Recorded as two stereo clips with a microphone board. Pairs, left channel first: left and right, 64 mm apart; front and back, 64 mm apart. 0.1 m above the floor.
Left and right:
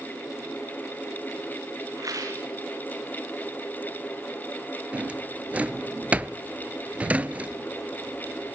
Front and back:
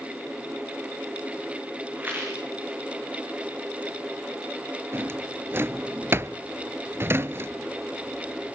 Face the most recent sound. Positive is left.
turn(degrees=-150)